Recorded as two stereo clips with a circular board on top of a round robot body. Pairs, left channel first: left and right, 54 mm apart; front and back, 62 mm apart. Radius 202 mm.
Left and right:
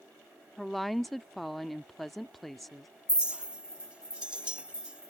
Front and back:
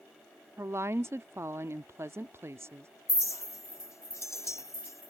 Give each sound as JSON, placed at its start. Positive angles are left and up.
{"t": 0.6, "sound": "a woman speaking", "azimuth_deg": 175}
{"t": 3.1, "sound": "a clink", "azimuth_deg": -20}